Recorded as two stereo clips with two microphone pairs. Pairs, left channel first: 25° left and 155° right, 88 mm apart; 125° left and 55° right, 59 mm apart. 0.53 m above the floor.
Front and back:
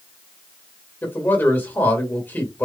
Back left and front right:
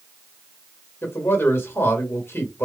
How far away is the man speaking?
About 2 m.